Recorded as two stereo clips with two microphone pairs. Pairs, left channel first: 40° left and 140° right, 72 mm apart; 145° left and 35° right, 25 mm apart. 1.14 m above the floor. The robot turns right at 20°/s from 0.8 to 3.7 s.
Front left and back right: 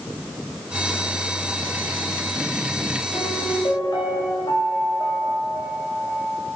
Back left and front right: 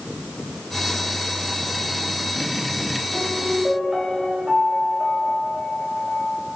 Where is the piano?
30° left, 2.5 m; by 6.4 s 40° left, 2.5 m.